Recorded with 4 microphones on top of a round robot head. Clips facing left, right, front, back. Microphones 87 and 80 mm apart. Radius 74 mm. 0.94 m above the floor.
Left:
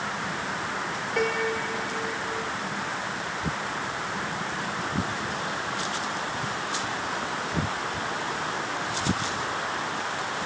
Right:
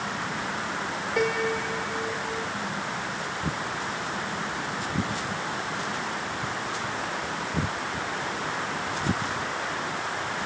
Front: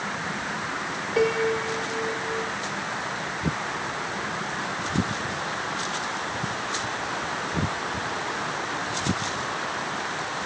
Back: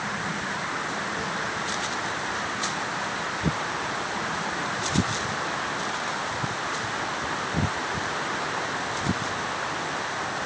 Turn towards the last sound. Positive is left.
turn(degrees=-5)